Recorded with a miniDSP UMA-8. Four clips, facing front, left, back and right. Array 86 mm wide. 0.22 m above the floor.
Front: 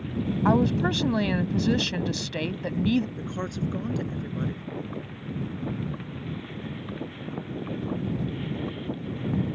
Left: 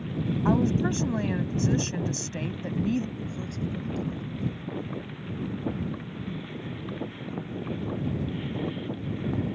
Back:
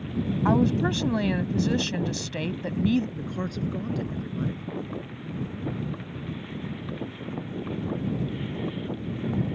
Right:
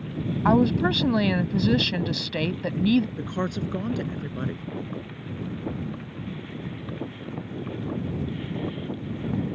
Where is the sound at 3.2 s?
80° right.